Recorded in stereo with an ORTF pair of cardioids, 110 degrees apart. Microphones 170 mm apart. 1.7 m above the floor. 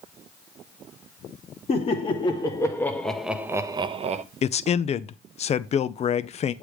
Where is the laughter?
35° left, 1.3 m; by 4.2 s 45° right, 0.8 m.